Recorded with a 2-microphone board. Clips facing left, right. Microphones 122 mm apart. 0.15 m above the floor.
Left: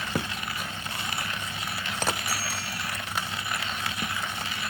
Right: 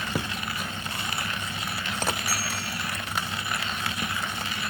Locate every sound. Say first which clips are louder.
2.3 s a bicycle bell: right 1 dB; 20° left (ahead or behind), 7.5 m